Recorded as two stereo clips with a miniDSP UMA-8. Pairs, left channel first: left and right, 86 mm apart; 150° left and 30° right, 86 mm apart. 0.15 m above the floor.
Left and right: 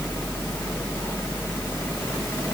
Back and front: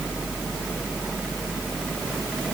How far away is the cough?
I don't hear a cough.